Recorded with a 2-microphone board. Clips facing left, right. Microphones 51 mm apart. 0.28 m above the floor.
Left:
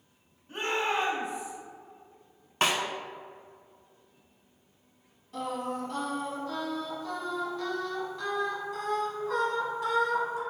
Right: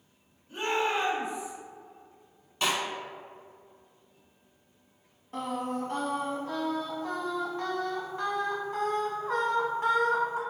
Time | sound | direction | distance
0.5 | a shout | 55° left (ahead or behind) | 1.6 m
2.6 | a snare drum | 55° left (ahead or behind) | 0.5 m
5.3 | singing | 40° right (ahead or behind) | 0.8 m